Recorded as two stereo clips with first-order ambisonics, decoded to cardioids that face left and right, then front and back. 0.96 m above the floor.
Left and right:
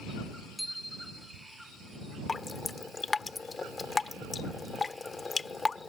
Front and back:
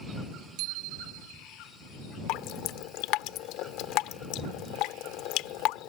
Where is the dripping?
15° left.